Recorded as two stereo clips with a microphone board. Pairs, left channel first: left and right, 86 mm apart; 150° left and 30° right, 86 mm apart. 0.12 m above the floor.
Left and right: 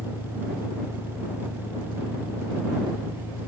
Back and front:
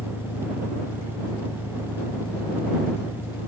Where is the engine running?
135° left.